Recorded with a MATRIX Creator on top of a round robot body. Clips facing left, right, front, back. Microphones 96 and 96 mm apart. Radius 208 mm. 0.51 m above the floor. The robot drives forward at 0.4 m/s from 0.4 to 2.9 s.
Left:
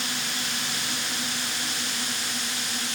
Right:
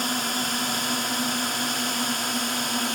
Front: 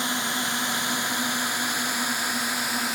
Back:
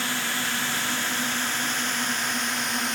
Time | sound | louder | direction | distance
0.0 | a drone | right 6 dB, front 1 dB | 65° right | ?